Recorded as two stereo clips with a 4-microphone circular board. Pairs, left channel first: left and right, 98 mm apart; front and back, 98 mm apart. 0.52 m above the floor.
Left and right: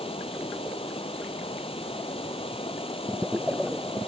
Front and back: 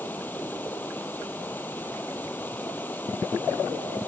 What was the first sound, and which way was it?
Running water, 75° left.